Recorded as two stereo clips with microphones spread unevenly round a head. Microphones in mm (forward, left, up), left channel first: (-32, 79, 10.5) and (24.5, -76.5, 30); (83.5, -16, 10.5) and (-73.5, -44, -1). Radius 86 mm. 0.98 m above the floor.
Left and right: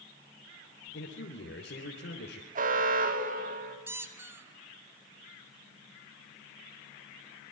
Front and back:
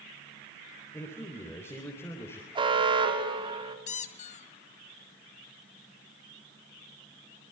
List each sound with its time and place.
0.9 s a man speaking: 85° left, 3.5 m
2.5 s an alarm: 115° right, 3.5 m
3.9 s a squeak: 5° right, 1.2 m